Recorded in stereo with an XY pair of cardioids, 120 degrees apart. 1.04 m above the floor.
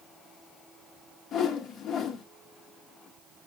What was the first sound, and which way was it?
A whoosh, 60° left.